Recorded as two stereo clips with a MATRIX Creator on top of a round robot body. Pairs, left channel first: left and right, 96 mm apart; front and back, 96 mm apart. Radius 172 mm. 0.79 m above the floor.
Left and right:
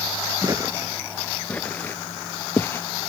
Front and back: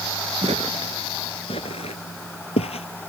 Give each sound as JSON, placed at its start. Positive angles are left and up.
{"t": 0.4, "sound": "footsteps", "azimuth_deg": -150}